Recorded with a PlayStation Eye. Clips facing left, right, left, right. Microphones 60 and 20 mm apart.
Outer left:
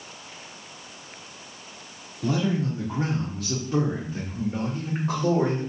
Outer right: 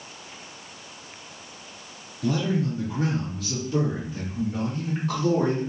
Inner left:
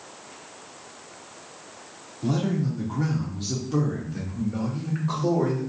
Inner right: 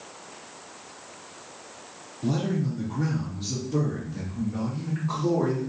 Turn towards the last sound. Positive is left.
turn(degrees=40)  # may be behind; listen again after turning